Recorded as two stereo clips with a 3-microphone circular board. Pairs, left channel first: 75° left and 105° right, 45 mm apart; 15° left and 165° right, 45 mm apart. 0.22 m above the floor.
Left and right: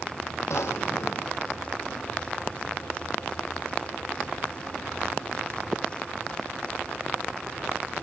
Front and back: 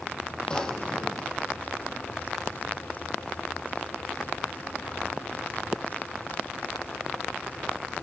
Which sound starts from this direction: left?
A drawer, at 0.5 s.